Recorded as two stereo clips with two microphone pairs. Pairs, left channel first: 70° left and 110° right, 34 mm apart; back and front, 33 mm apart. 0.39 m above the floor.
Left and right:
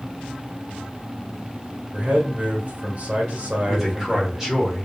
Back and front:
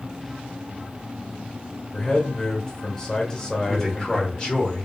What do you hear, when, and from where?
1.9 s a man speaking: 115° right, 1.1 m
3.7 s a man speaking: 165° right, 1.2 m